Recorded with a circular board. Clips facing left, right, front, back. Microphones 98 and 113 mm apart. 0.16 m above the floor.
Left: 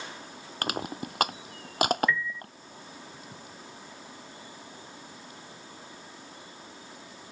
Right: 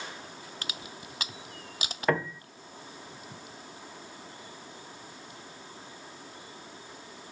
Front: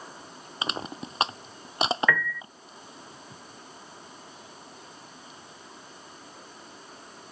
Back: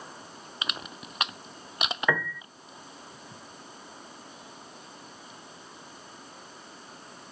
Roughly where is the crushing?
Ahead left.